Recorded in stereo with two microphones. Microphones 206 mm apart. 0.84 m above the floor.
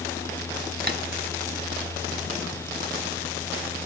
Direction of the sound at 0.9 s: 50° right (ahead or behind).